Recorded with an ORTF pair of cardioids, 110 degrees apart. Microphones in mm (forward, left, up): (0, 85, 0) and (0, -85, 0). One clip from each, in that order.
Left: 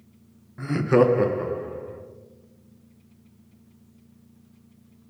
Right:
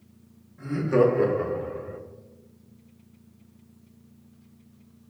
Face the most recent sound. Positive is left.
turn(degrees=-25)